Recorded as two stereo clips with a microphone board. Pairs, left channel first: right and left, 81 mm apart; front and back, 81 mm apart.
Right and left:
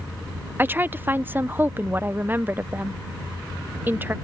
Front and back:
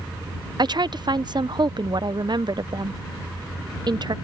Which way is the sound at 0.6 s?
155° left.